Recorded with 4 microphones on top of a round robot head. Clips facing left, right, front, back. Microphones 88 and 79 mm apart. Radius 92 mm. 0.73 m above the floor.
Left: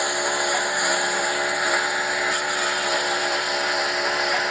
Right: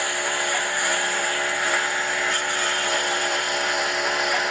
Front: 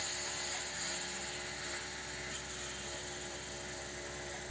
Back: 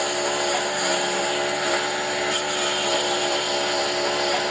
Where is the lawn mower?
165° left; by 4.5 s straight behind.